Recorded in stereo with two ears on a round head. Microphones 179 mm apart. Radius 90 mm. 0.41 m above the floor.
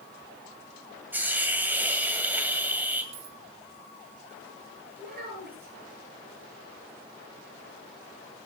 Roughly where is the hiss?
Centre.